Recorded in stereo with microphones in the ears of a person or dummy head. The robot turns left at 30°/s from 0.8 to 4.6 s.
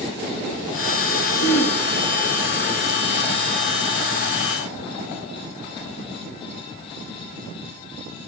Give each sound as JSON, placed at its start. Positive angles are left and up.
{"t": 1.4, "sound": "throat clearing", "side_deg": 80, "distance_m": 8.0}